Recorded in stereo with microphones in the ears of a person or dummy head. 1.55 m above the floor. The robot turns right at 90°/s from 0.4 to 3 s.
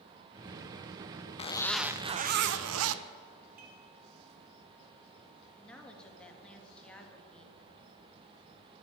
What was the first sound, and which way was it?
A zipper, 145° left.